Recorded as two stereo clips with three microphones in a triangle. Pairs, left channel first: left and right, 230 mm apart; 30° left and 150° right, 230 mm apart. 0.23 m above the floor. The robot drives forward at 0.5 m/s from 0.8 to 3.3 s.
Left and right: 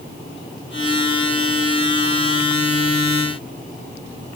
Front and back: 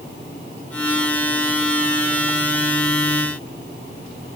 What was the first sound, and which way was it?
Only background noise.